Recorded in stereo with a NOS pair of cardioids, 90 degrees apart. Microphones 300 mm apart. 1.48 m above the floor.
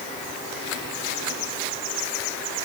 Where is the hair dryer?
No hair dryer in this recording.